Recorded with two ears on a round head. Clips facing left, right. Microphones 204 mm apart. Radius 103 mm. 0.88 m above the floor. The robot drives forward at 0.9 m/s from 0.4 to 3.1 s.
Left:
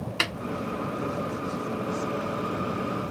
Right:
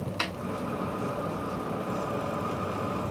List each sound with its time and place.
0.2 s a snare drum: 30° left (ahead or behind), 1.3 m